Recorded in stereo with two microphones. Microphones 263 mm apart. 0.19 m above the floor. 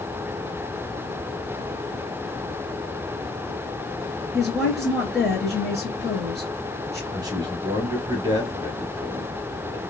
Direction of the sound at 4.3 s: Centre (ahead or behind).